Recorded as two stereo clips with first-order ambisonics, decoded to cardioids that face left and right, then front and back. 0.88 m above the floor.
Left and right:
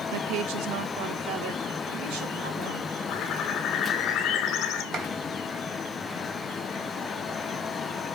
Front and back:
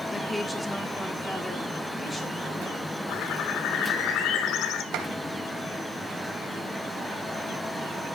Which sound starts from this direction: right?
A woman speaking, at 0.1 s.